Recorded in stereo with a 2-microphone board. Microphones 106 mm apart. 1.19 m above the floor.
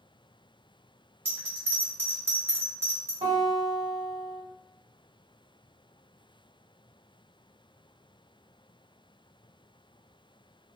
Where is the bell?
20° right (ahead or behind), 1.2 m.